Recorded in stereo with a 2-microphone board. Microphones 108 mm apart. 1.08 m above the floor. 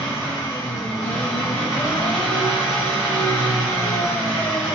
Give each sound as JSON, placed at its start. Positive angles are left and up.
{"t": 0.0, "sound": "an engine running", "side_deg": 30, "distance_m": 1.2}